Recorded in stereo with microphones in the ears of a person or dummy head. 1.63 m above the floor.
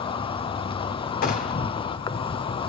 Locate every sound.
0.0 s an insect: 25° left (ahead or behind), 0.8 m
1.2 s a gunshot: 40° left (ahead or behind), 2.0 m